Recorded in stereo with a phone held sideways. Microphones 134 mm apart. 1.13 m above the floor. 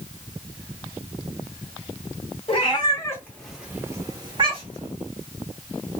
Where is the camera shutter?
I don't hear a camera shutter.